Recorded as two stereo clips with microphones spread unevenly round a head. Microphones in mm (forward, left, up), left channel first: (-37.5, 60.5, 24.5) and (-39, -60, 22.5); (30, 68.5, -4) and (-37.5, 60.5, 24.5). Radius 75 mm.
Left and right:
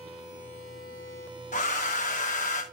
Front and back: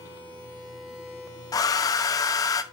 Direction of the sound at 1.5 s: 45° left.